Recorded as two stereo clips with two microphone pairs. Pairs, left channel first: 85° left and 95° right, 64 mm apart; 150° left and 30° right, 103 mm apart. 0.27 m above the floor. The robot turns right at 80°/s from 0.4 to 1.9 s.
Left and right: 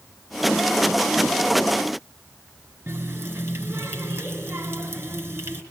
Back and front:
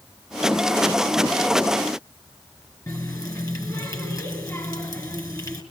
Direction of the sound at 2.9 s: 150° right.